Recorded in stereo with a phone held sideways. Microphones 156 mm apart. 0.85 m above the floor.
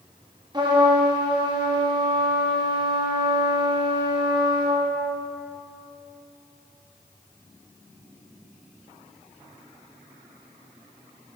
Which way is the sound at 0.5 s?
30° right (ahead or behind).